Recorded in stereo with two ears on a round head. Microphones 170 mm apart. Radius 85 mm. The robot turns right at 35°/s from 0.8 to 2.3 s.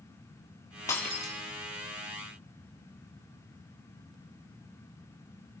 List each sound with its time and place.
0.9 s breaking glass: 15° left (ahead or behind), 4.5 m; by 1.3 s centre (ahead or behind), 4.5 m